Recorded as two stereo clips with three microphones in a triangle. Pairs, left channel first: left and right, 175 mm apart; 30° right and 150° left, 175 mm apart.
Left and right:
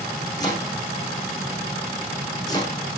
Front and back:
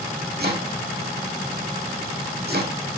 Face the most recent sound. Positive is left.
turn(degrees=155)